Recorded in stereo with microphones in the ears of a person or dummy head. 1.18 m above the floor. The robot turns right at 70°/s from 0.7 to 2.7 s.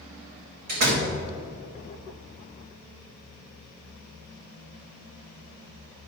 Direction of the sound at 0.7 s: 45° right (ahead or behind).